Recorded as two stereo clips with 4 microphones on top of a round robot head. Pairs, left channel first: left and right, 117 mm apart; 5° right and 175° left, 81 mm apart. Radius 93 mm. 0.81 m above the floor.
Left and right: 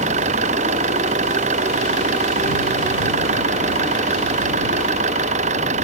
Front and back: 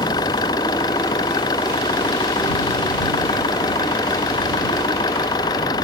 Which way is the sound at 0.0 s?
55° right.